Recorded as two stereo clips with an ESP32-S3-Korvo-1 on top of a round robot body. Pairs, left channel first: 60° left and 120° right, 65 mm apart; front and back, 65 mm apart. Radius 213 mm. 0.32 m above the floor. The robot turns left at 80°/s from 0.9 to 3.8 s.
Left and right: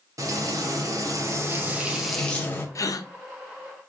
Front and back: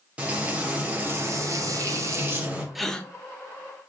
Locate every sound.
0.2 s frying: 115° right, 1.4 m; by 2.6 s 105° left, 1.4 m
2.8 s a gasp: 95° left, 0.6 m; by 3.1 s 65° left, 0.6 m